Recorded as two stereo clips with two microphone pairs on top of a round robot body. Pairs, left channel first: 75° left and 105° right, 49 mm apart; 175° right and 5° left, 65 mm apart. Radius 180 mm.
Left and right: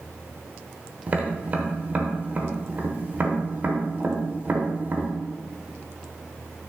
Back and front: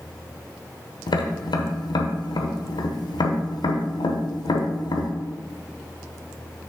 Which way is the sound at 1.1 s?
165° right.